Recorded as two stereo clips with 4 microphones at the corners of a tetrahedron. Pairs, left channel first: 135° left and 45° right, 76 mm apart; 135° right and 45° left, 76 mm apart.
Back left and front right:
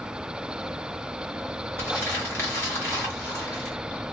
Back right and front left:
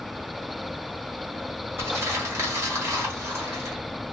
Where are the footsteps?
I don't hear footsteps.